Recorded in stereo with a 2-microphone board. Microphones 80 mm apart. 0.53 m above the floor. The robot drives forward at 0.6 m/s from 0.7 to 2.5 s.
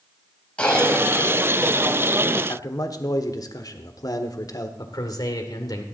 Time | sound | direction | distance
0.6 | a cough | 15° left (ahead or behind) | 3 m
2.5 | a man speaking | 50° left (ahead or behind) | 1.4 m
4.8 | a man speaking | 55° left (ahead or behind) | 1.9 m